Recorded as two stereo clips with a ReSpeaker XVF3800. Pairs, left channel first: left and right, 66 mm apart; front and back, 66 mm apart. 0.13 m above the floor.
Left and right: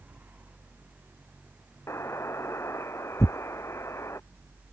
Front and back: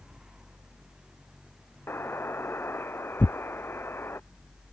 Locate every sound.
1.9 s a buzzer: 50° left
3.2 s tearing paper: 55° left